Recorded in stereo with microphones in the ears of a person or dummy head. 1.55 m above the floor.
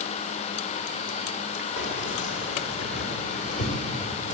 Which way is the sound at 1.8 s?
65° left (ahead or behind).